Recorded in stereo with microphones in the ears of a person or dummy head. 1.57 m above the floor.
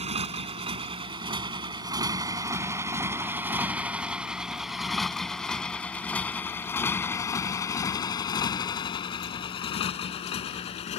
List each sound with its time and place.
0.0 s a motorcycle: 35° right (ahead or behind); by 11.0 s 40° left (ahead or behind)